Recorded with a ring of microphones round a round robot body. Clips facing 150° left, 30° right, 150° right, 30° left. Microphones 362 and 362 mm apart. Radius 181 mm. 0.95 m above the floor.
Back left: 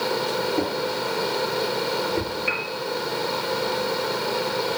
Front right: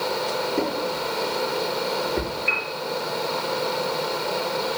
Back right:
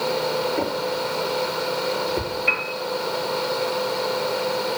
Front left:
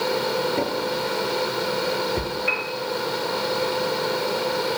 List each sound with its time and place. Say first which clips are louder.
0.6 s a drawer: even, even; 45° left, 6 m
2.5 s a piano: back left 2 dB, even; 175° right, 4 m